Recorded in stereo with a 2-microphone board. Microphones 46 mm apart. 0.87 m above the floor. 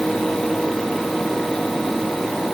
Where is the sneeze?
No sneeze in this recording.